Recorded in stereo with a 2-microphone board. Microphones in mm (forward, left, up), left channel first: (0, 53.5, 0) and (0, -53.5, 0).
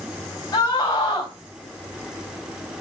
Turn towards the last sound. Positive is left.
turn(degrees=25)  # may be behind; listen again after turning